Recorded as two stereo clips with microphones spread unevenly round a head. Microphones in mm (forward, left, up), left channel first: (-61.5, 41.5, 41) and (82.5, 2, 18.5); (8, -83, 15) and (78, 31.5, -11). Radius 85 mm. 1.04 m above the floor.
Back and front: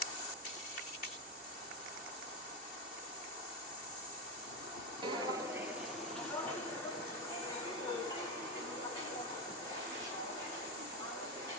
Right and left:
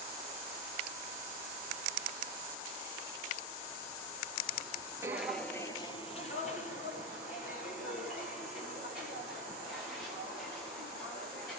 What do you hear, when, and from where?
5.0 s footsteps: 5° right, 1.0 m; by 11.6 s 125° right, 8 m